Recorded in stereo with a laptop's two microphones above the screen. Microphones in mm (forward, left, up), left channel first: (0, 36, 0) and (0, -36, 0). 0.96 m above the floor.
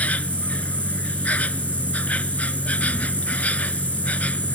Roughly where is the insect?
Left.